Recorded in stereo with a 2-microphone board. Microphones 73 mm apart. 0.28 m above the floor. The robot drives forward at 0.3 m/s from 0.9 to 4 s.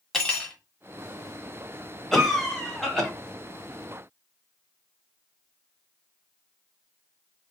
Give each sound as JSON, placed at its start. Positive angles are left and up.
{"t": 0.1, "sound": "cutlery clinking", "side_deg": 5, "distance_m": 0.8}
{"t": 2.1, "sound": "a cough", "side_deg": 5, "distance_m": 1.1}